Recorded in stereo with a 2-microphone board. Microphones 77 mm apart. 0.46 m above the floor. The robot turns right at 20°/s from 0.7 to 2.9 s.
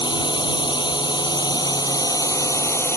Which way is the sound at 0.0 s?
100° left.